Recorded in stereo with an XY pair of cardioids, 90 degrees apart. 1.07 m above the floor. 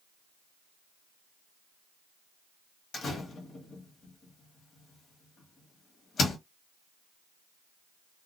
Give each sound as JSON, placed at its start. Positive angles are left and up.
{"t": 2.9, "sound": "a door slam", "azimuth_deg": 60, "distance_m": 1.1}